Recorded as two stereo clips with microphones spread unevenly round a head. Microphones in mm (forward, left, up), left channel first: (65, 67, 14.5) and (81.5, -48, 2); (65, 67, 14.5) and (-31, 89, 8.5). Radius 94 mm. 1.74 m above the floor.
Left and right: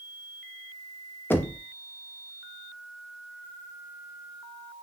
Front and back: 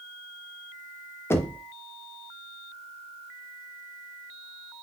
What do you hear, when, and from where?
1.3 s knocking: 40° left, 0.6 m